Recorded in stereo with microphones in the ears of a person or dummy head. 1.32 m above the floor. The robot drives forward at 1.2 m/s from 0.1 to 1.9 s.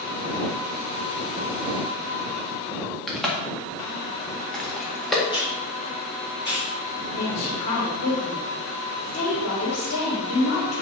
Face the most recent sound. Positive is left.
turn(degrees=85)